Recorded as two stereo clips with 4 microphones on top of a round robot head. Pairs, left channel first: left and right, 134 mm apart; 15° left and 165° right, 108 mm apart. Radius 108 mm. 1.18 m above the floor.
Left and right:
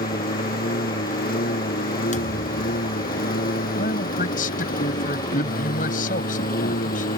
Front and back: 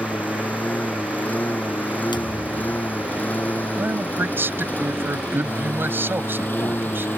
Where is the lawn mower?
90° left; by 7.2 s 85° left.